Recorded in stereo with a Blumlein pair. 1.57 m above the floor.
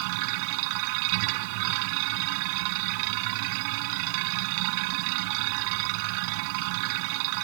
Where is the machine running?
45° right.